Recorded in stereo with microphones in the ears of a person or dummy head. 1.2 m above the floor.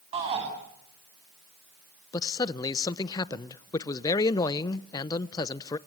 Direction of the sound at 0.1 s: 35° right (ahead or behind).